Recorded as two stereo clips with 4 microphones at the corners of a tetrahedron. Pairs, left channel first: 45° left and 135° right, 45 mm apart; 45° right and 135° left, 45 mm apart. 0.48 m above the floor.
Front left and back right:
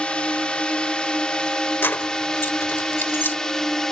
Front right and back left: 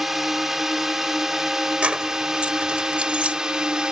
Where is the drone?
55° left; by 3.9 s 100° left.